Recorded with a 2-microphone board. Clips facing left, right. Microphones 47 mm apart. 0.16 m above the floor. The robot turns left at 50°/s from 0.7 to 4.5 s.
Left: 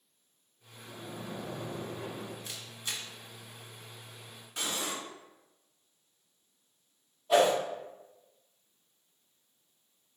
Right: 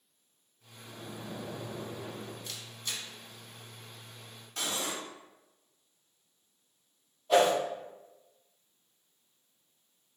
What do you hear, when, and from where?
0.8 s a splash: 165° left, 0.7 m; by 2.4 s 85° left, 0.7 m
2.5 s a camera shutter: 15° left (ahead or behind), 0.7 m; by 3.0 s 20° left (ahead or behind), 0.7 m
4.6 s cutlery clinking: 20° left (ahead or behind), 1.1 m
7.3 s a whoosh: 10° left (ahead or behind), 1.3 m